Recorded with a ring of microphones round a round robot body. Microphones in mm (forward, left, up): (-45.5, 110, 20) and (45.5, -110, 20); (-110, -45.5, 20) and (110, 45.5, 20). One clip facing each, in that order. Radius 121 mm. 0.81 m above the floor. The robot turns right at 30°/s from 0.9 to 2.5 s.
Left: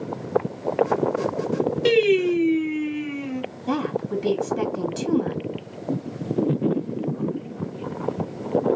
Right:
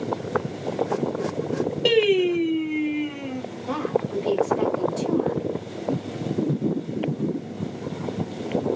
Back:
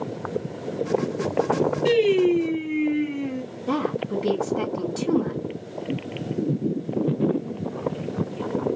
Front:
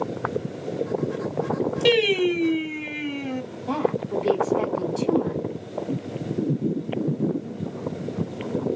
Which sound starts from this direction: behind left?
A woman speaking, at 3.7 s.